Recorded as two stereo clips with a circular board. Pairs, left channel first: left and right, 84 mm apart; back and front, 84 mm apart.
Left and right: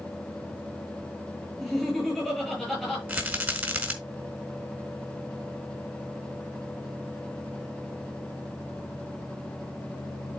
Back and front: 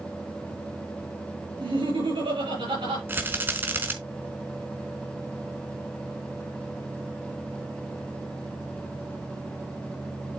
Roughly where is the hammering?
No hammering in this recording.